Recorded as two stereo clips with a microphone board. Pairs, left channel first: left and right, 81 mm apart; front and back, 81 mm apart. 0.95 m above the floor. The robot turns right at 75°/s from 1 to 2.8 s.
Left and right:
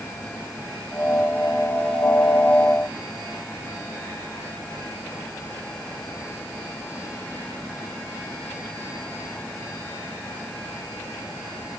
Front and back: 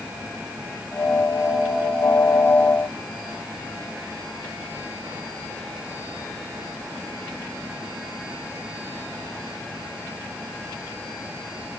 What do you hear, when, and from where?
Only background noise.